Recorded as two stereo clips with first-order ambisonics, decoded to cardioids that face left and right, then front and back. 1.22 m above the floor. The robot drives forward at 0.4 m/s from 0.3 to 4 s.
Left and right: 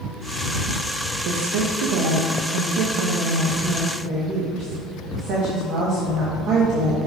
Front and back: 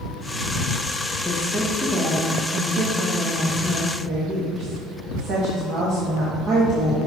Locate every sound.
1.2 s a woman speaking: 85° right, 1.0 m; by 7.1 s 135° right, 1.4 m